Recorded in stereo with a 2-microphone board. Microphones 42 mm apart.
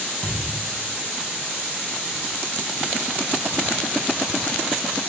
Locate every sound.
0.2 s a thud: 20° left (ahead or behind), 3 m